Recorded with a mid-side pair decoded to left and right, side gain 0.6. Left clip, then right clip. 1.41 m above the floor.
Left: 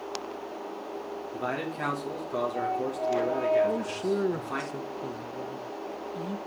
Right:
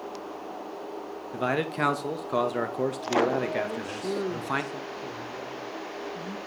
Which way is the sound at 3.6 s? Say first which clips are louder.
Left 4 dB; 20° left.